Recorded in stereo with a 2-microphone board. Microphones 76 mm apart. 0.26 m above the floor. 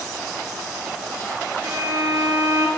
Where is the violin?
60° right (ahead or behind), 3.5 m.